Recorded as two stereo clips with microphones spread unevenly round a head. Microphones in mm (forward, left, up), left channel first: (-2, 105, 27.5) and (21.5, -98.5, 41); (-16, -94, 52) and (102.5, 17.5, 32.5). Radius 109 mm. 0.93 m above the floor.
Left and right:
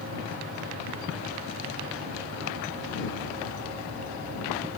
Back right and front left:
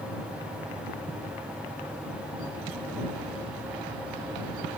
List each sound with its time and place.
Only background noise.